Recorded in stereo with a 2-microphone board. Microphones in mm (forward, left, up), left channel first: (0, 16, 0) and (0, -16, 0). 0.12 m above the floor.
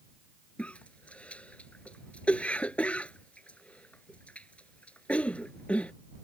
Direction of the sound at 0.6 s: 45° left (ahead or behind).